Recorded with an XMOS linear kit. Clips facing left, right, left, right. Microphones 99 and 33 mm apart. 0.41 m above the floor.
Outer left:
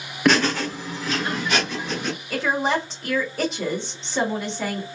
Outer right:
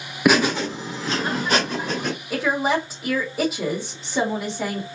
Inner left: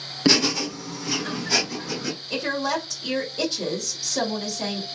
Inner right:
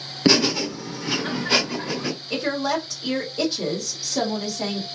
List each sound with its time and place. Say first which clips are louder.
0.2 s laughter: outer right 1 dB, inner right 2 dB; 10° right (ahead or behind), 0.9 m; by 2.1 s 50° right (ahead or behind), 1.4 m
2.3 s a woman speaking: outer right 1 dB, inner right 1 dB; 10° right (ahead or behind), 1.4 m